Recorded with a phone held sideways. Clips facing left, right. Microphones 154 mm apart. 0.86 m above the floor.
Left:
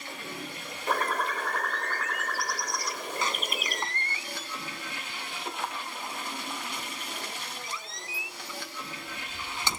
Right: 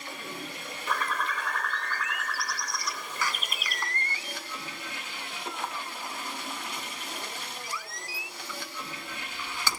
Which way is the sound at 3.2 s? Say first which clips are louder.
Left 1 dB; 20° left (ahead or behind).